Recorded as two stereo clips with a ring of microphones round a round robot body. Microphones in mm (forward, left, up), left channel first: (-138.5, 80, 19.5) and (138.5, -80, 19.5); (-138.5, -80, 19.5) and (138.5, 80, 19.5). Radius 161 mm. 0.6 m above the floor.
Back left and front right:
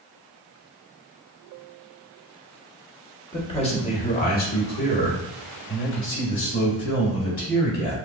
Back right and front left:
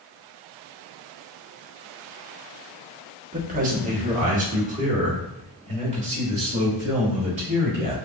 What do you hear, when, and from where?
3.3 s a man speaking: 80° left, 1.1 m; by 8.0 s 100° left, 3.5 m